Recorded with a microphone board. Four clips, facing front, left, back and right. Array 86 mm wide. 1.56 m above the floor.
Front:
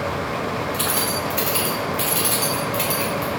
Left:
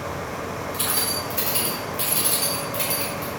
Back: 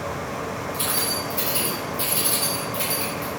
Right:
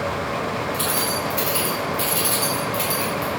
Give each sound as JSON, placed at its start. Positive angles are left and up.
{"t": 0.7, "sound": "keys jangling", "azimuth_deg": 0, "distance_m": 4.0}